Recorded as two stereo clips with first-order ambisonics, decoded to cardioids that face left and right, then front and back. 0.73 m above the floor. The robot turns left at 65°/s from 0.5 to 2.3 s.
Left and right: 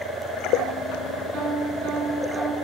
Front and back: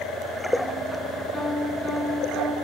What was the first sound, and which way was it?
A piano, 75° right.